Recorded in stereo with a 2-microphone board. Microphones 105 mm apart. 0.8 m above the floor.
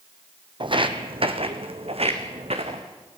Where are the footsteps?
50° right (ahead or behind), 1.5 m; by 2.8 s 75° right (ahead or behind), 3 m.